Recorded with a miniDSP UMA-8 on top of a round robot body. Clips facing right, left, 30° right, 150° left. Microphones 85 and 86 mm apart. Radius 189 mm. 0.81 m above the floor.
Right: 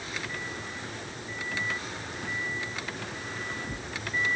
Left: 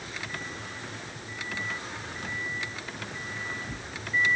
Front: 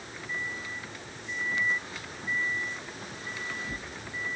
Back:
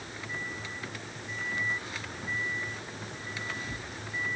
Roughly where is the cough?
I don't hear a cough.